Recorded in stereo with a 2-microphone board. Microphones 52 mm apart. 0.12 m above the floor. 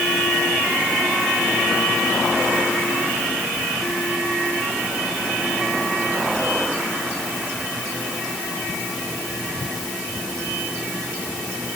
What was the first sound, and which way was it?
Only background noise.